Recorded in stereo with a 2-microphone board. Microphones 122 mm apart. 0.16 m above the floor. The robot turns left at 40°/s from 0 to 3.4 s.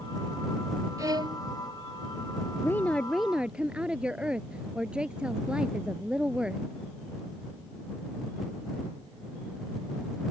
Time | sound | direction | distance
1.0 | a violin | 30° right (ahead or behind) | ?
2.6 | a woman speaking | 25° left | ?